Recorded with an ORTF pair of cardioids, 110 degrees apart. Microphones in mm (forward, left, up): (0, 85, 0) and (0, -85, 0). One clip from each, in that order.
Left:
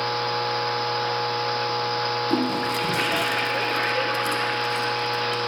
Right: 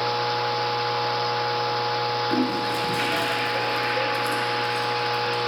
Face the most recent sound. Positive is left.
turn(degrees=25)